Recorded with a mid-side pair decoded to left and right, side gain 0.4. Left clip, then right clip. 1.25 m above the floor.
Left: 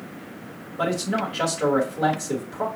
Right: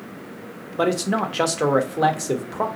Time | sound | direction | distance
0.8 | a man speaking | 65° right | 1.1 m